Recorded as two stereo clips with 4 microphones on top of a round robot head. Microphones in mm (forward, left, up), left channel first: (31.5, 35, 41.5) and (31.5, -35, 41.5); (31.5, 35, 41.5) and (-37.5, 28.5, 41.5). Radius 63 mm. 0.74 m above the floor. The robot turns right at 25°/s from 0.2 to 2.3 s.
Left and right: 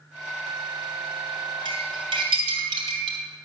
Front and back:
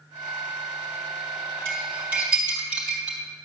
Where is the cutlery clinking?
110° right, 3 m; by 3.2 s 95° right, 3 m.